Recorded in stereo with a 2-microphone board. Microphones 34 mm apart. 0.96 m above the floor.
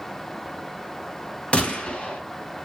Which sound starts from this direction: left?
A gunshot, at 1.5 s.